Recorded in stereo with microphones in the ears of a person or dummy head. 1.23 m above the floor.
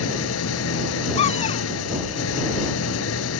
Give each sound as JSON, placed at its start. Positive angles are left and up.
{"t": 0.0, "sound": "an engine running", "side_deg": 80}
{"t": 1.2, "sound": "a cupboard door", "side_deg": 35}